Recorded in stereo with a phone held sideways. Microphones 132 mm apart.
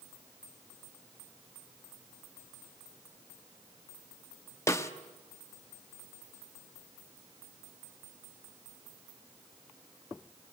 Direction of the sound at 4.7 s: 25° left (ahead or behind).